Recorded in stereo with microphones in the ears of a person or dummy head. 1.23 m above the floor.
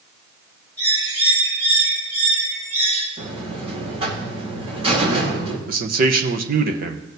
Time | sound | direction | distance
0.8 | a bird | 25° right (ahead or behind) | 6 m
3.2 | a buzzer | 30° right (ahead or behind) | 3 m
5.7 | a man speaking | 50° right (ahead or behind) | 1.1 m